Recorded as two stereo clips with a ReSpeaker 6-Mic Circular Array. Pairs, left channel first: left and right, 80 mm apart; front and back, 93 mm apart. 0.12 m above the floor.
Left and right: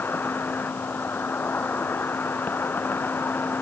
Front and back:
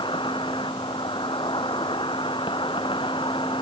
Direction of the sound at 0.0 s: 25° left.